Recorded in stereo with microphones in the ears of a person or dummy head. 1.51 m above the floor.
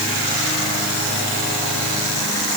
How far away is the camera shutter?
No camera shutter in this recording.